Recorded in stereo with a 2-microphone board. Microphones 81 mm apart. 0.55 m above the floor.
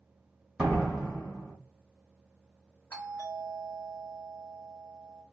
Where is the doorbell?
25° left (ahead or behind), 1.4 m.